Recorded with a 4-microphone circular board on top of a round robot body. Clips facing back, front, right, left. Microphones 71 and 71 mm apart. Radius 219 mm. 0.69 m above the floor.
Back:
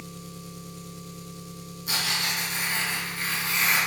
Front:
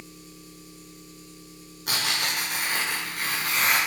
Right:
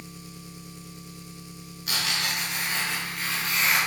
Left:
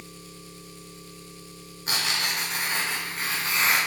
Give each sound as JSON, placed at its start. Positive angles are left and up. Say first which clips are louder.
{"t": 0.0, "sound": "an engine running", "louder": "back 5 dB, right 1 dB", "azimuth_deg": -160, "distance_m": 0.8}
{"t": 1.9, "sound": "tearing paper", "louder": "front 1 dB, left 1 dB", "azimuth_deg": 30, "distance_m": 1.2}